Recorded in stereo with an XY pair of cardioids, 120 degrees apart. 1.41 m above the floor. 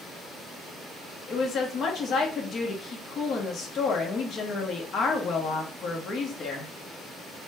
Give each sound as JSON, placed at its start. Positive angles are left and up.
{"t": 1.3, "sound": "a woman speaking", "azimuth_deg": 50, "distance_m": 1.4}